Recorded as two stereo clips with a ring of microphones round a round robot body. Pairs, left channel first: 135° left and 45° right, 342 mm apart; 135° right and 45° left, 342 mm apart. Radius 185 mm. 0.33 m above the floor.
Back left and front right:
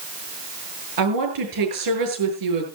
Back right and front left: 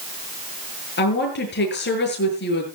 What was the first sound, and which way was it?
A woman speaking, 75° right.